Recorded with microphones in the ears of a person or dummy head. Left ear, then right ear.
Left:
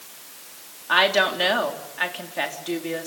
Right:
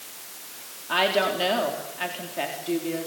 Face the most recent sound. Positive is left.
turn(degrees=45)  # may be behind; listen again after turning